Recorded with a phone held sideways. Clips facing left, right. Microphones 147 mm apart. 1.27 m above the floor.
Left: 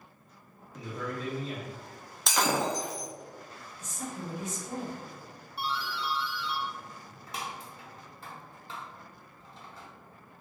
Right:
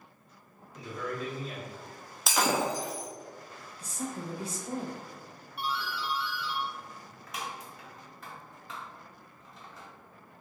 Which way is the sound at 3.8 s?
35° right (ahead or behind).